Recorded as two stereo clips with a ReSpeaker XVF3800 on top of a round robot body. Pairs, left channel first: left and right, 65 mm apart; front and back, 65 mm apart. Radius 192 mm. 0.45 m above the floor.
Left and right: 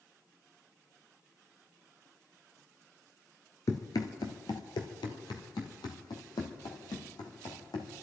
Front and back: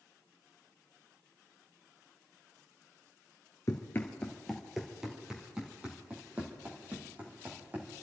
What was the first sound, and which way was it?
Running footsteps, 50° left.